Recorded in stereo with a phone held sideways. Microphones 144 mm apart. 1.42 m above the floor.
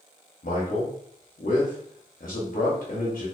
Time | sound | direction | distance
0.4 | a man speaking | 90° left | 0.7 m